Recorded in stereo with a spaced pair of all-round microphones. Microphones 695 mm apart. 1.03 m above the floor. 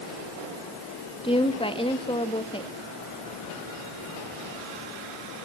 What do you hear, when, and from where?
1.2 s a woman speaking: 10° left (ahead or behind), 1.7 m